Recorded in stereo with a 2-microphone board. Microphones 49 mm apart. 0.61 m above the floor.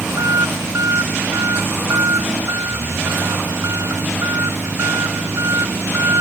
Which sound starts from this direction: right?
An engine running, at 0.0 s.